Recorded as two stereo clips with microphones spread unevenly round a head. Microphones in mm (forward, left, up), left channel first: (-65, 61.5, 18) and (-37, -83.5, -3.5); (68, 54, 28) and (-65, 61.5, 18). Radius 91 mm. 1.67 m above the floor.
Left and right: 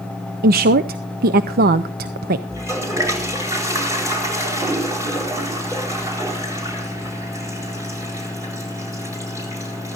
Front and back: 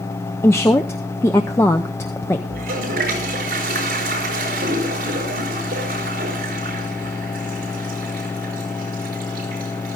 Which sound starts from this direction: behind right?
A toilet flushing, at 2.5 s.